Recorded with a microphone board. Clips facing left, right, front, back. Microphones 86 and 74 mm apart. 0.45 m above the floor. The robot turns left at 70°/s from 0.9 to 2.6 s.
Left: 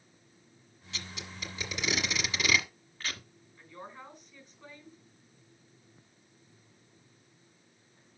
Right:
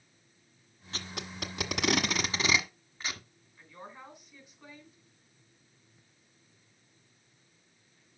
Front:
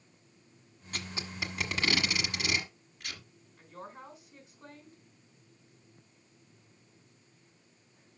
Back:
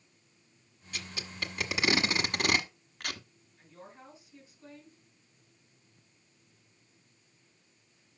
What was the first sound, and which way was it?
Tape being pulled, 45° right.